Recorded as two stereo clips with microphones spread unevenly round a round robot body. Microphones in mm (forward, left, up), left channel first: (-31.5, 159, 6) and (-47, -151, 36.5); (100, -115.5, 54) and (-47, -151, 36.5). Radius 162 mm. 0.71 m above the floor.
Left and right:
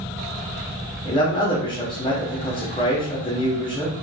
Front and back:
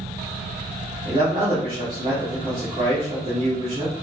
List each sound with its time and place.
1.1 s a man speaking: 155° left, 0.9 m